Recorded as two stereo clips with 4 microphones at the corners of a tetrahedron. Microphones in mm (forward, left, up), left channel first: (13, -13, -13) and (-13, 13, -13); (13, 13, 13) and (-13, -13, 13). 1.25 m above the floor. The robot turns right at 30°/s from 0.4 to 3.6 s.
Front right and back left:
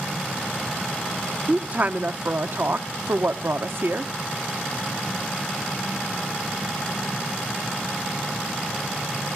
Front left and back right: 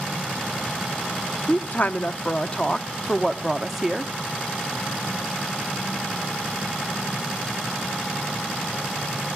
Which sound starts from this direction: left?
A woman speaking, at 1.5 s.